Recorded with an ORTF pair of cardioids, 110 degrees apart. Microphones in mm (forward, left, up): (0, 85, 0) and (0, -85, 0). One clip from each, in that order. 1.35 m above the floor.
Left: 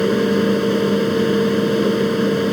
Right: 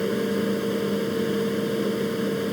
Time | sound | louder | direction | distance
0.0 | a fan | left 8 dB | 50° left | ?